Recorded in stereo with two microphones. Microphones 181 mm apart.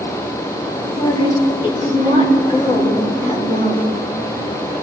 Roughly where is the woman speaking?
Left.